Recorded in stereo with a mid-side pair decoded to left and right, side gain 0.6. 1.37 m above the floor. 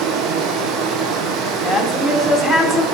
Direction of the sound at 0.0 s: 60° right.